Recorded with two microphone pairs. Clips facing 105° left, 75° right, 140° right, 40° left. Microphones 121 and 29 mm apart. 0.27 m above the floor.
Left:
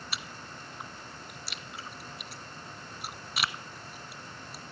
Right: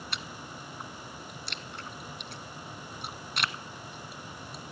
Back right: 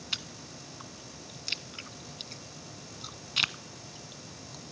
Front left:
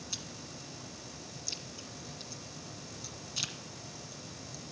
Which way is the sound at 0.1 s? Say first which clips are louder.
Right 2 dB, back right 9 dB; 170° right.